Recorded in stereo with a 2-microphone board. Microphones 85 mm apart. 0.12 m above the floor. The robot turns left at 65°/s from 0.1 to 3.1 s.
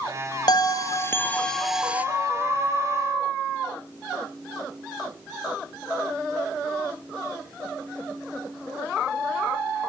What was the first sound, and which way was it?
A bell, 75° left.